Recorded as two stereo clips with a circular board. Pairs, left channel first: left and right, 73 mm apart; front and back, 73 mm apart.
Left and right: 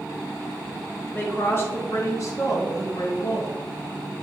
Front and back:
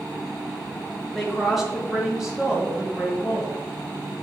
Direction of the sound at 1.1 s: 85° left.